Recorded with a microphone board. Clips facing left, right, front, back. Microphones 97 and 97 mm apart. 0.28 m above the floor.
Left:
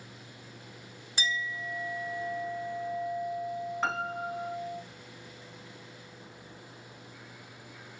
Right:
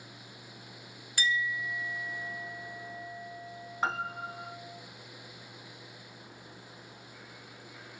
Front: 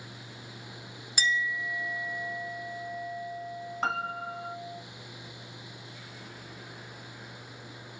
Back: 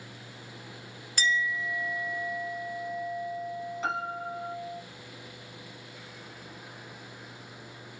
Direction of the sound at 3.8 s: 10° right.